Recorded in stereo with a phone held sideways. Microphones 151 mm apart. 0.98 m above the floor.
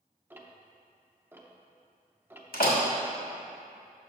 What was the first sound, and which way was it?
Ticking, 15° right (ahead or behind).